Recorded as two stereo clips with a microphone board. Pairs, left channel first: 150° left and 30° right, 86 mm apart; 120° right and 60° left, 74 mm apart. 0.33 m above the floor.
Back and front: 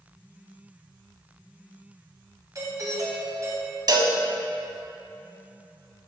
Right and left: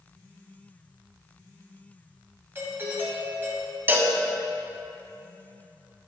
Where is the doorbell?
5° left, 2 m.